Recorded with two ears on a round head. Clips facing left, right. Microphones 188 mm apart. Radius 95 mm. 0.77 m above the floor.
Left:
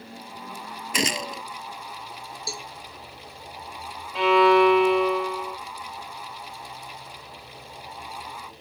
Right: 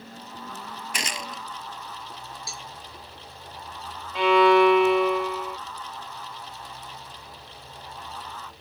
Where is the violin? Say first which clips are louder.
Even; centre (ahead or behind).